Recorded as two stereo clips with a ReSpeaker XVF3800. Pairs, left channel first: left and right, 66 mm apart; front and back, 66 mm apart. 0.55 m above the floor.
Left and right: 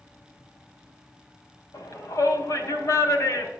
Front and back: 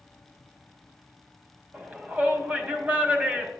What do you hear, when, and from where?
1.7 s a shout: 115° left, 3 m